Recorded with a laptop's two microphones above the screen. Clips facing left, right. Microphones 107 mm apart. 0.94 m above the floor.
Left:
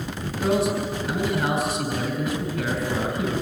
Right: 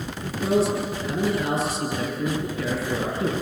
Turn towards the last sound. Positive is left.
turn(degrees=70)  # may be behind; listen again after turning